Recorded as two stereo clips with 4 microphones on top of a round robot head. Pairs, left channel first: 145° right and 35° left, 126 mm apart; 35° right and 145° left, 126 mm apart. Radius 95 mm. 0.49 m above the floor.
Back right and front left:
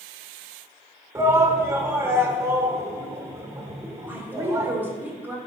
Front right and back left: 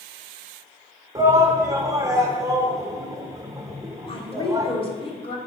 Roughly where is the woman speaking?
Ahead right.